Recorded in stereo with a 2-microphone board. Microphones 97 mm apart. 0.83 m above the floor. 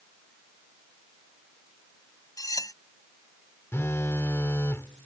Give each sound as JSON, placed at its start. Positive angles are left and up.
{"t": 2.4, "sound": "cutlery clinking", "side_deg": 40}
{"t": 3.7, "sound": "a phone buzzing", "side_deg": 25}